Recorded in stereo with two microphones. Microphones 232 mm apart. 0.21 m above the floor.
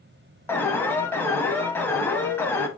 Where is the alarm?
10° left (ahead or behind), 0.7 m.